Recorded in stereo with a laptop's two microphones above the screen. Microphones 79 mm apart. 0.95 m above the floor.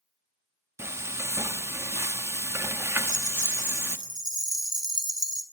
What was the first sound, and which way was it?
Frying, 35° right (ahead or behind).